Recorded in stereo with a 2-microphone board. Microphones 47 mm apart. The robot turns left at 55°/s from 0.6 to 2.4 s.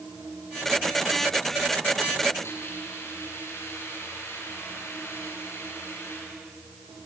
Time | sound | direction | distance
2.4 | a hiss | 70° left (ahead or behind) | 9.5 m